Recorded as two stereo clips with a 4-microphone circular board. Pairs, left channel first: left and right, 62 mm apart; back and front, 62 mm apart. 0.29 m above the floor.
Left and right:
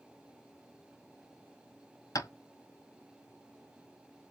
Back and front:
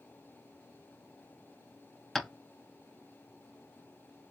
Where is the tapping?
95° left, 0.6 m.